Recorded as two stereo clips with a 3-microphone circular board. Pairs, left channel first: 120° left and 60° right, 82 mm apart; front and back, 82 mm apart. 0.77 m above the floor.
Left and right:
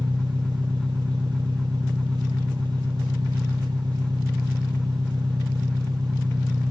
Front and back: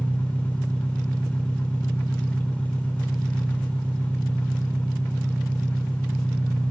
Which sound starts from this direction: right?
An engine running, at 0.0 s.